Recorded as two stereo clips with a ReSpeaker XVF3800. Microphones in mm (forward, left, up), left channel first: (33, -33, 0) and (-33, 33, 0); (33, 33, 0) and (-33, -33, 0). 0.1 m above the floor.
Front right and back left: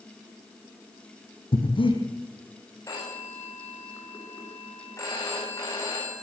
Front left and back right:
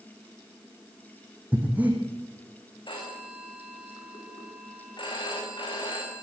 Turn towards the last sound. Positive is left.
turn(degrees=10)